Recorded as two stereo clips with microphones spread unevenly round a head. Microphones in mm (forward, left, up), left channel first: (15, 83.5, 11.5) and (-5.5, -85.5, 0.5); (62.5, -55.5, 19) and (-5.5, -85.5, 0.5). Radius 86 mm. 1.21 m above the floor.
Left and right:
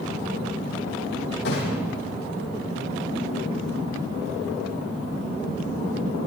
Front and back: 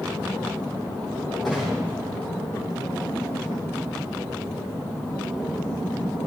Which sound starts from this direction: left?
A gunshot, at 1.4 s.